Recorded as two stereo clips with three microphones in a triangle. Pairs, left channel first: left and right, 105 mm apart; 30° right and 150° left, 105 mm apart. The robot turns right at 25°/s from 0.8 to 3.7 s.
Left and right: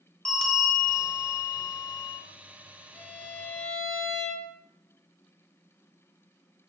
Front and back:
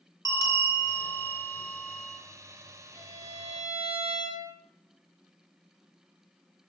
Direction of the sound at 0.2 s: 10° left.